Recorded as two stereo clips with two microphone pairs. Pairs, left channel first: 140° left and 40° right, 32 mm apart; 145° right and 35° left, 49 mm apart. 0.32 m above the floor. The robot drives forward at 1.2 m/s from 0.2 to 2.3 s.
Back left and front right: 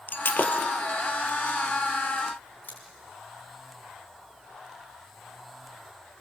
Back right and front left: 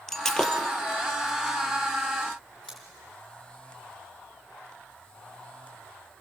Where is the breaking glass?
135° left, 1.8 m; by 0.6 s 145° left, 2 m.